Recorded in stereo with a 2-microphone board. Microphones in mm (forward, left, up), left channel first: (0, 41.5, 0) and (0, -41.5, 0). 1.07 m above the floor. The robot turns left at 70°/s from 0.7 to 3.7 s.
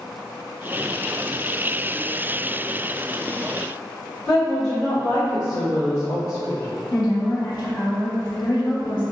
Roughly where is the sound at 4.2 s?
Centre.